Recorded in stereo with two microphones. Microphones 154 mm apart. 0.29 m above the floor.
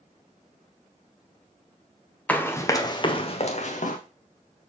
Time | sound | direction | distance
2.3 | running footsteps | 10° left (ahead or behind) | 0.9 m